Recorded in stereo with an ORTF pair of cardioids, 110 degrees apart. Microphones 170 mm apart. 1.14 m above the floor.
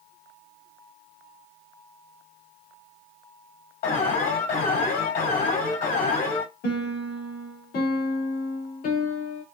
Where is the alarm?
60° left, 4 m.